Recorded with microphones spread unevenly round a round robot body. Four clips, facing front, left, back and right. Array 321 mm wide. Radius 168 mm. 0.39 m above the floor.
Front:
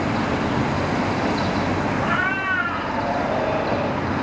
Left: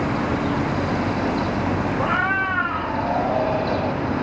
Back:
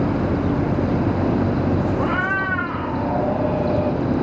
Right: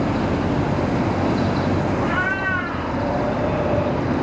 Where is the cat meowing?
140° left, 1.1 m.